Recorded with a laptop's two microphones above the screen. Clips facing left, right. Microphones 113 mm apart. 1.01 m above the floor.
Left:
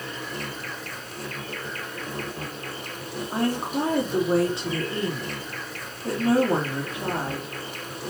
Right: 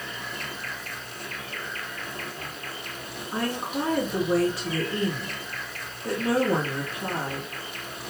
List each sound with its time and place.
0.0 s an insect: 40° left (ahead or behind), 2 m
3.3 s a woman speaking: 25° left (ahead or behind), 2.5 m